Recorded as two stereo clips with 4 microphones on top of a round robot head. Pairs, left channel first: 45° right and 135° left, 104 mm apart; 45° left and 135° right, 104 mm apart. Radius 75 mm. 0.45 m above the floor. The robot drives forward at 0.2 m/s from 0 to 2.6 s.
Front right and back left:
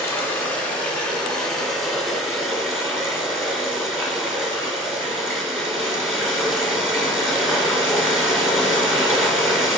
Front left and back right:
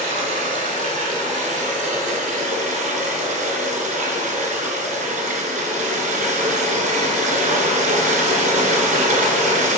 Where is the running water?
115° right, 0.8 m; by 9.8 s 140° right, 1.1 m.